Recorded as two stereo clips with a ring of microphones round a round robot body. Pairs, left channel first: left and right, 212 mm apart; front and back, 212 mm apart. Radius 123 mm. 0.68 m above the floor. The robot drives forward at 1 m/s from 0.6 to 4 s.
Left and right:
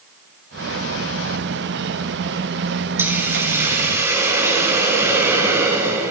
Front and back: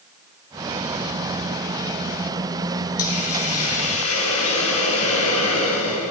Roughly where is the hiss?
Ahead.